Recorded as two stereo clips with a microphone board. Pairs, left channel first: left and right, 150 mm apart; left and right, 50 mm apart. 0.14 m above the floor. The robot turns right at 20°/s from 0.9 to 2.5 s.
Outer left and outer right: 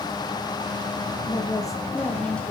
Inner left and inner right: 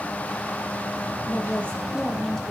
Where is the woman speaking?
30° left (ahead or behind), 3.5 m; by 2.5 s 5° left (ahead or behind), 3.5 m.